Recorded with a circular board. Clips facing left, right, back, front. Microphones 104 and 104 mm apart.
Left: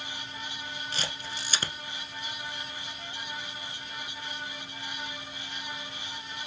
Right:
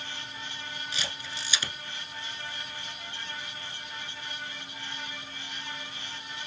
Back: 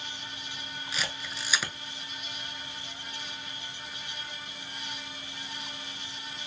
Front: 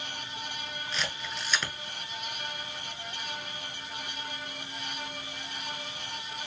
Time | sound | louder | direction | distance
0.9 | a camera shutter | left 1 dB, even | 95° left | 0.7 m